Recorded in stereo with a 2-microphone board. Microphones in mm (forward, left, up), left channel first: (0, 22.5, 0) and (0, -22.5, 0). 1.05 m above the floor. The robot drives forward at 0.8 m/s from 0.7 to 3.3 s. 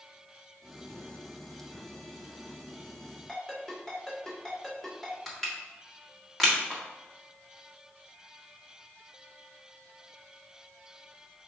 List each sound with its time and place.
3.3 s a ringtone: 10° left (ahead or behind), 1.8 m
5.3 s crushing: 5° left (ahead or behind), 1.5 m